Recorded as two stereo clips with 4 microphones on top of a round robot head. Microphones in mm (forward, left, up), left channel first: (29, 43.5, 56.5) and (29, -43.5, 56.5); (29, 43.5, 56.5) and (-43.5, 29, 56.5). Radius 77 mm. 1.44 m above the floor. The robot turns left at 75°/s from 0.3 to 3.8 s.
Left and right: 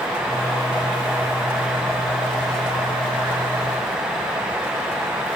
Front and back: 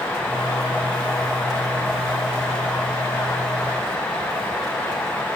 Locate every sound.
Only background noise.